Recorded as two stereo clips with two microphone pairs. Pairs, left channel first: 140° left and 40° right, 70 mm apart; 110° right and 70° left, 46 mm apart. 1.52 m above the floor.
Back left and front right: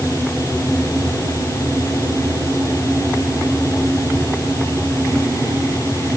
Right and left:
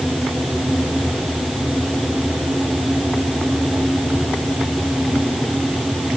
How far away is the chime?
I don't hear a chime.